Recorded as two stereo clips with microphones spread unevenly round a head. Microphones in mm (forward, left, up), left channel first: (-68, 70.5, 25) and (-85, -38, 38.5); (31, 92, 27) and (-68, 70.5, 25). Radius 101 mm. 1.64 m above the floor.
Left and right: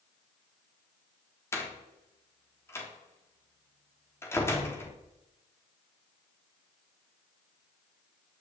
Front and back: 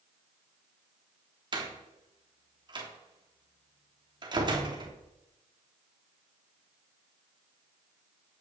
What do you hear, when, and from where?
1.5 s a door slam: 150° left, 3.5 m